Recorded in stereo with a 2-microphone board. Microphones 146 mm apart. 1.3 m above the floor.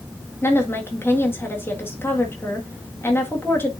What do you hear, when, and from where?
0.4 s a woman speaking: 15° left (ahead or behind), 1.7 m